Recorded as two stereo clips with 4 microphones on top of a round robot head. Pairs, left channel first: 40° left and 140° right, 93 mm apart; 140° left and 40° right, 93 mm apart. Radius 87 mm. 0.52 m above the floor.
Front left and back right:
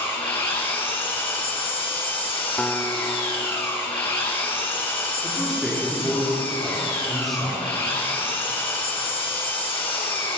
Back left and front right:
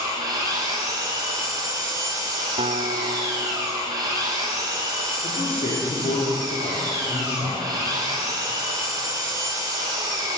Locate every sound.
0.0 s an engine running: 10° left, 7.5 m
2.6 s a guitar: 35° right, 1.4 m
5.2 s a man speaking: 130° left, 10 m